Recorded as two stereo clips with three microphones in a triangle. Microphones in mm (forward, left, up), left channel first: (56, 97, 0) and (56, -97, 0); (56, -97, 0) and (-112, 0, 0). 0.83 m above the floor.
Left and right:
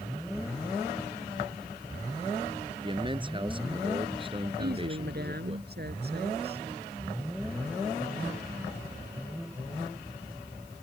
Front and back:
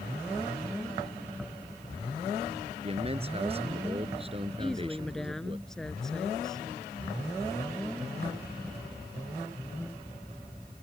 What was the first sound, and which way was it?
A man speaking, 155° right.